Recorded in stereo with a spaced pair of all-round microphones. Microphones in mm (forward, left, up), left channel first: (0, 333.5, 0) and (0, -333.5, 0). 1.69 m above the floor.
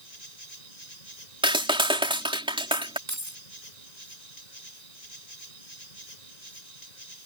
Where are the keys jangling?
25° right (ahead or behind).